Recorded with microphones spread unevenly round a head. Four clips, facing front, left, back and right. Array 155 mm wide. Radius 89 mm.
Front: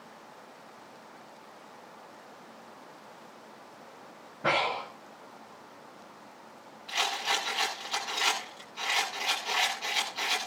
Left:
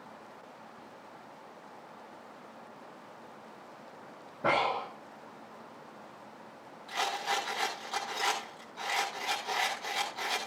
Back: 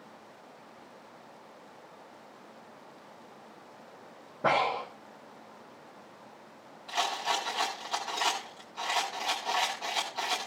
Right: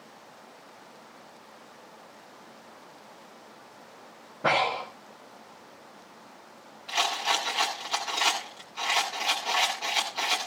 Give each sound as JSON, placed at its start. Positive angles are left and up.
{"t": 4.4, "sound": "breathing", "azimuth_deg": -160, "distance_m": 6.5}
{"t": 6.9, "sound": "a rattle", "azimuth_deg": -150, "distance_m": 7.5}